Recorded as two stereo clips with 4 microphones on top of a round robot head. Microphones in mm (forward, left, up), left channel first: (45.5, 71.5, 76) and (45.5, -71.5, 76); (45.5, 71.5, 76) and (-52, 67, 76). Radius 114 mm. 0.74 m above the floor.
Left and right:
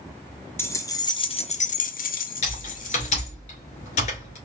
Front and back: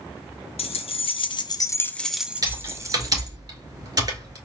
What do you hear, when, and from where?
0.6 s keys jangling: 15° left, 1.0 m; by 3.3 s 130° left, 1.1 m
2.4 s typing on a keyboard: 130° left, 2 m